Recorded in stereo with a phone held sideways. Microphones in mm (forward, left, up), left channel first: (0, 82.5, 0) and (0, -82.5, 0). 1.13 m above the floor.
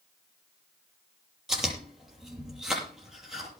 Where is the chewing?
5° right (ahead or behind), 7.5 m.